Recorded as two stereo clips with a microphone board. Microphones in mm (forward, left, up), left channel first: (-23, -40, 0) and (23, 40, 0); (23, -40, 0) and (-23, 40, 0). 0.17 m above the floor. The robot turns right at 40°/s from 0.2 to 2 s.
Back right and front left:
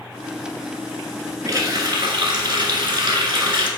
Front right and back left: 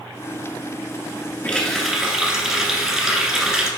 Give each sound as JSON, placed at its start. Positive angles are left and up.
{"t": 1.4, "sound": "a running tap", "azimuth_deg": 10, "distance_m": 1.5}